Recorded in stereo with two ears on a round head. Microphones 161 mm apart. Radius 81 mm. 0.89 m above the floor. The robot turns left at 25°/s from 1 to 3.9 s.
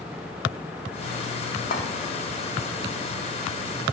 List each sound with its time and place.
1.7 s a clink: 45° left (ahead or behind), 1.1 m